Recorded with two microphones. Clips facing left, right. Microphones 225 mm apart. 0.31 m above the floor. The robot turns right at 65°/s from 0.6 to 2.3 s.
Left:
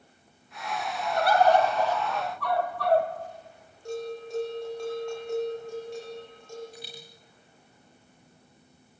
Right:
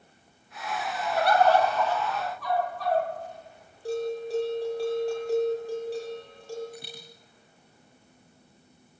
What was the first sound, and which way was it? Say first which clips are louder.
A bird: even; 5° right.